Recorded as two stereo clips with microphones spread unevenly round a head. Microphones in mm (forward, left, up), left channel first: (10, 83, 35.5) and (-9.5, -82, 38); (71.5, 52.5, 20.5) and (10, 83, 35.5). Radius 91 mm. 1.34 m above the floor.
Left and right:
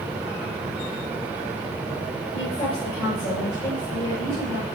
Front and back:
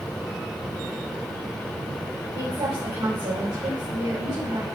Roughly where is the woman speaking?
Behind left.